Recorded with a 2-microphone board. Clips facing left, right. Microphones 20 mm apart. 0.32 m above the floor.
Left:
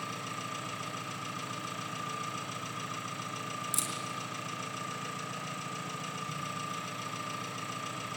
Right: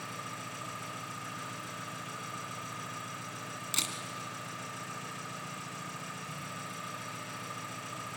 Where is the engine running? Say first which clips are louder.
Left 3 dB; 35° left (ahead or behind), 6 m.